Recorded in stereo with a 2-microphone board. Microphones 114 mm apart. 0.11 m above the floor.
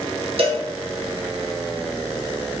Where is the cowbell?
60° right (ahead or behind), 0.7 m.